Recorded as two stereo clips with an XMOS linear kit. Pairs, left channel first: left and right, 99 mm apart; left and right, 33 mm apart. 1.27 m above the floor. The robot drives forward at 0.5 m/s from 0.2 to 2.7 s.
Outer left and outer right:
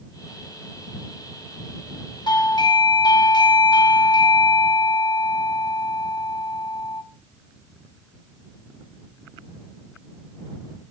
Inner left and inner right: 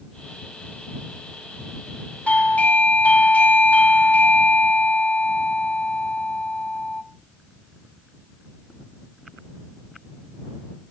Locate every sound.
2.3 s a doorbell: 50° left (ahead or behind), 1.2 m; by 7.0 s 45° left (ahead or behind), 1.2 m